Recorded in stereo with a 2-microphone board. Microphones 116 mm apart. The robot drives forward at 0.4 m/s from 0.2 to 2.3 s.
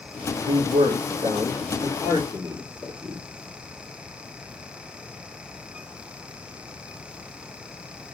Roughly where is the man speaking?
Right.